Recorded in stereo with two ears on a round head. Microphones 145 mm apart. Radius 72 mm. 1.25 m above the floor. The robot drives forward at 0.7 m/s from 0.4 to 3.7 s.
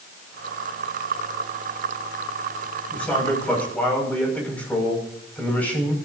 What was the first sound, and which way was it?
A man speaking, 10° left (ahead or behind).